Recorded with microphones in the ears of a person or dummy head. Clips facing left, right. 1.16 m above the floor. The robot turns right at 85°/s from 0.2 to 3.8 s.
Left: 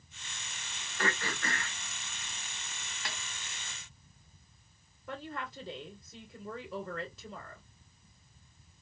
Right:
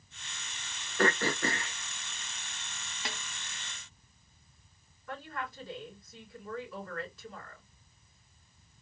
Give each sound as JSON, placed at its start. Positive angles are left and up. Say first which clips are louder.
{"t": 1.0, "sound": "throat clearing", "louder": "right 7 dB", "azimuth_deg": -85, "distance_m": 0.5}
{"t": 3.0, "sound": "a snare drum", "louder": "right 3 dB", "side_deg": -20, "distance_m": 1.3}
{"t": 5.1, "sound": "a woman speaking", "louder": "even", "side_deg": 25, "distance_m": 3.0}